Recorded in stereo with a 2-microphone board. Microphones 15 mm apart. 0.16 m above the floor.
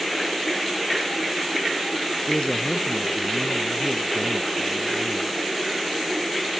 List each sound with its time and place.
2.3 s a man speaking: 65° left (ahead or behind)